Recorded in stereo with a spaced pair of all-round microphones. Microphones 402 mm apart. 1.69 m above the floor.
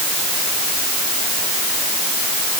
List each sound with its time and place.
Only background noise.